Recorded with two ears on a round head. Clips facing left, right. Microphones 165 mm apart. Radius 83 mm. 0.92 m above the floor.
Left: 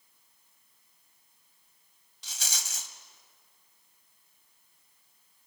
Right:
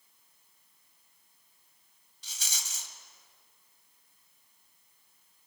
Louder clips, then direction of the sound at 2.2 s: Left 4 dB; 60° left (ahead or behind).